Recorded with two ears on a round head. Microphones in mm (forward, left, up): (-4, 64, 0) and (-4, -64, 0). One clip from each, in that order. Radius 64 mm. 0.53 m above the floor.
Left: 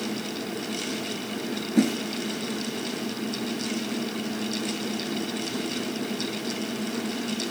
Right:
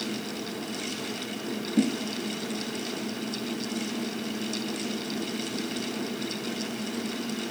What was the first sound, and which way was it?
A whoosh, 55° left (ahead or behind).